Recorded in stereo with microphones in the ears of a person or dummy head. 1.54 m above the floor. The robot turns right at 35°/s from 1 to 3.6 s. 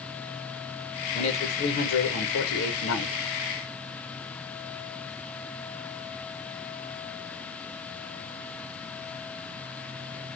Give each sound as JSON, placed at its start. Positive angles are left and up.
{"t": 1.1, "sound": "a man speaking", "azimuth_deg": 45, "distance_m": 1.1}